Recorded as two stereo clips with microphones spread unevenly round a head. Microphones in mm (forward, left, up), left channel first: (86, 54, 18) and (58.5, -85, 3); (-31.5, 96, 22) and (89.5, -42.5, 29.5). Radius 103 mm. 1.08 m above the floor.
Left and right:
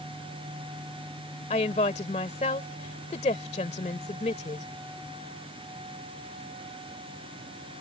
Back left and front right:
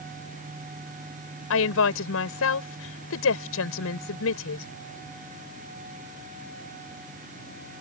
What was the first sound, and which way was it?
A woman speaking, 140° left.